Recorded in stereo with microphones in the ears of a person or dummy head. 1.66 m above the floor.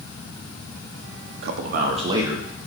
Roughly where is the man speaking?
Right.